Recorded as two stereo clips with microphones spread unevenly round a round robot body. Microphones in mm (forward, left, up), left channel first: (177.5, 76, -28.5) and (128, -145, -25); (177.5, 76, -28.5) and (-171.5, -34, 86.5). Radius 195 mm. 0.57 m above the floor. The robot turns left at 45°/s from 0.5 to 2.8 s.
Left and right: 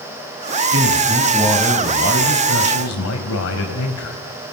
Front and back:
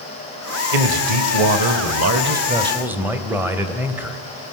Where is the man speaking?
160° right, 3 m; by 4.2 s 105° left, 3 m.